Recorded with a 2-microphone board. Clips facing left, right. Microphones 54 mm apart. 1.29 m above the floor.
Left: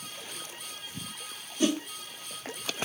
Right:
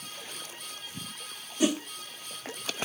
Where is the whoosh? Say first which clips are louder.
Even; 10° right (ahead or behind), 1.0 m.